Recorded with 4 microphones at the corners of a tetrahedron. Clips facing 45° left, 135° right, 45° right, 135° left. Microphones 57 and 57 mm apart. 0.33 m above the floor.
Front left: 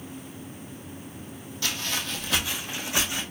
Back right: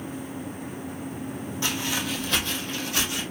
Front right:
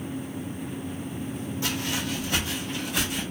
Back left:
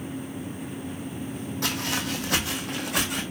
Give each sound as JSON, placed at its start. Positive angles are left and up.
{"t": 1.6, "sound": "footsteps", "azimuth_deg": 160, "distance_m": 0.9}